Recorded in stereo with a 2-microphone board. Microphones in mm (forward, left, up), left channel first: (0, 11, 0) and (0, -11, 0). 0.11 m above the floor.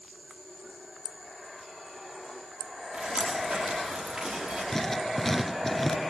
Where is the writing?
15° left (ahead or behind), 1.0 m.